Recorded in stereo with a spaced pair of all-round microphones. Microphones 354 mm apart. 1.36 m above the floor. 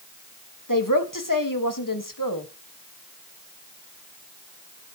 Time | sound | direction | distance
0.7 | a woman speaking | 65° left (ahead or behind) | 2.0 m